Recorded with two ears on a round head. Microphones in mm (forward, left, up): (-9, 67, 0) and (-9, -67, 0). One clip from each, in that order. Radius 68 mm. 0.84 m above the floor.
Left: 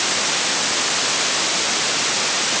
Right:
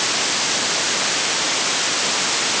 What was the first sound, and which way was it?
Only background noise.